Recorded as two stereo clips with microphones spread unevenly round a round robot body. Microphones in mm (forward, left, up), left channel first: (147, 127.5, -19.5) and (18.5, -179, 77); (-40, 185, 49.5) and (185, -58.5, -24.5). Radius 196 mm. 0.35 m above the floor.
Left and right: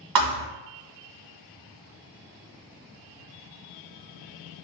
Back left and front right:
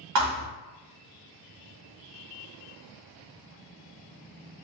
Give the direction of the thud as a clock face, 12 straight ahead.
3 o'clock.